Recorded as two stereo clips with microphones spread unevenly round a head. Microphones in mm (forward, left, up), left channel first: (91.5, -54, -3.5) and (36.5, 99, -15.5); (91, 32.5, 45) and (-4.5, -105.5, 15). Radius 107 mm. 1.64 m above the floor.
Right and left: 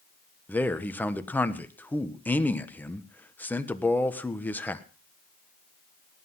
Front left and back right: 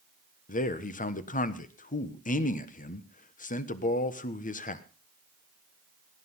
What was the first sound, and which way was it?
A man speaking, 10° left.